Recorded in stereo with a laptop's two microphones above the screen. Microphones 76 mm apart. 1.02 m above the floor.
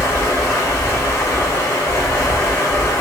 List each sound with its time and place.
0.0 s running water: 35° left (ahead or behind), 1.5 m